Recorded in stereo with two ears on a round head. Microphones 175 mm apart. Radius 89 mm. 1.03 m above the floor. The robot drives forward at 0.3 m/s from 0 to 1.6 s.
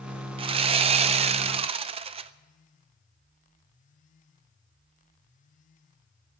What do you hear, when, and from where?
0.4 s sawing: 25° right (ahead or behind), 0.5 m; by 2.3 s 30° right (ahead or behind), 0.5 m